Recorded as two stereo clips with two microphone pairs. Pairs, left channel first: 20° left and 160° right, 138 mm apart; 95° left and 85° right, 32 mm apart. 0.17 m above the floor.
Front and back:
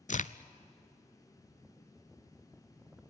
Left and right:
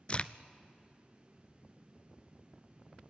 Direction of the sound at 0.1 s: 35° left.